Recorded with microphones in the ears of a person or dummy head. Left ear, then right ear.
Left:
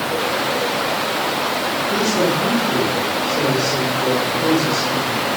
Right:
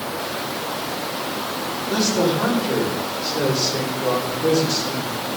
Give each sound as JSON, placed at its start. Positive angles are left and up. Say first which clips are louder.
{"t": 1.9, "sound": "a man speaking", "louder": "even", "side_deg": -75, "distance_m": 5.5}